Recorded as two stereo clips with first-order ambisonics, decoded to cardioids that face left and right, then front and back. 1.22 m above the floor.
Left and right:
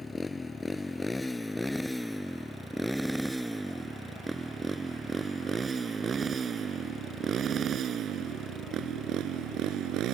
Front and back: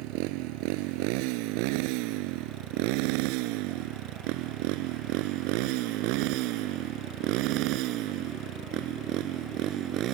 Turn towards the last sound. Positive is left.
turn(degrees=-135)